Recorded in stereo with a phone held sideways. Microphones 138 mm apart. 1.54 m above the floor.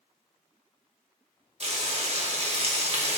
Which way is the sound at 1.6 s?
50° right (ahead or behind).